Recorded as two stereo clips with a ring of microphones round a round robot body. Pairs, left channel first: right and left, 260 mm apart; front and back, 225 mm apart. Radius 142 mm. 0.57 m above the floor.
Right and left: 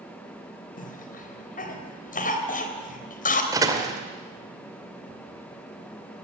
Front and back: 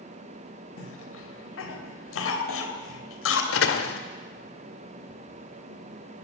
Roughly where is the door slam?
Ahead.